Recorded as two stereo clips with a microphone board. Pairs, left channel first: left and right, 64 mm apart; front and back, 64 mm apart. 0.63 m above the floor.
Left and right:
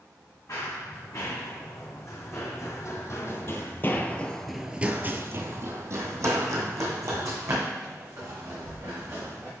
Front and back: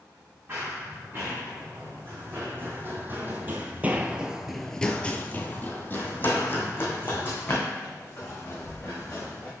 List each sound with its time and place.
0.5 s running footsteps: 125° left, 3.5 m; by 9.5 s 55° right, 4 m